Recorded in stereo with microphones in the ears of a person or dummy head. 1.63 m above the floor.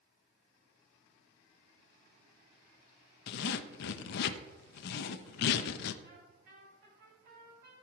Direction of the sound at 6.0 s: 60° right (ahead or behind).